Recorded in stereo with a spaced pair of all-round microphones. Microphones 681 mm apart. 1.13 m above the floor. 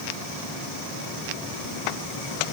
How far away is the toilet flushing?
I don't hear a toilet flushing.